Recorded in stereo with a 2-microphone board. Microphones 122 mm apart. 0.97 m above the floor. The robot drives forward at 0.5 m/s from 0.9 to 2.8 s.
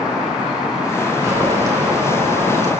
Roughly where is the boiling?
Right.